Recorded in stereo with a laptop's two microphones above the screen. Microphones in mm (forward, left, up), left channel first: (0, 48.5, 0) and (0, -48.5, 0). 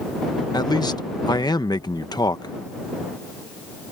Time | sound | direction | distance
0.5 | a man speaking | 45° left (ahead or behind) | ?